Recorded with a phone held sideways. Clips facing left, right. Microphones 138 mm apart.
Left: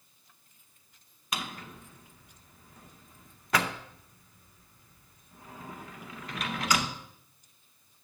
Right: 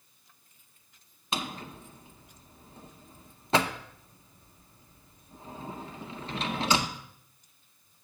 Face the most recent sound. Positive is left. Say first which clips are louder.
# right 3 dB
turn(degrees=-25)  # may be behind; listen again after turning